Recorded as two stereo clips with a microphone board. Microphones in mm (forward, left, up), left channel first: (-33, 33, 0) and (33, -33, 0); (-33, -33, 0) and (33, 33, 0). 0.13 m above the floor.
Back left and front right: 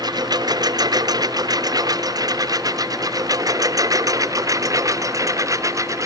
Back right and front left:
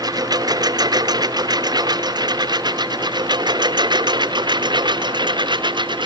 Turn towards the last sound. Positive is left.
turn(degrees=10)